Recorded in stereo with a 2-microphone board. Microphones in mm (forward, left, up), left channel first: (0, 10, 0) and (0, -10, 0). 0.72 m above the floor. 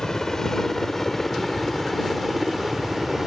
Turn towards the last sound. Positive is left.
turn(degrees=-20)  # may be behind; listen again after turning